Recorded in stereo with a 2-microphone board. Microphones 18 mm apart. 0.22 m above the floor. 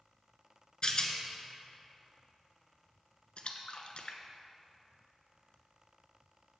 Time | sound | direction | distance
0.8 | a rattle | 45° left (ahead or behind) | 1.0 m
3.4 | a splash | 65° left (ahead or behind) | 0.8 m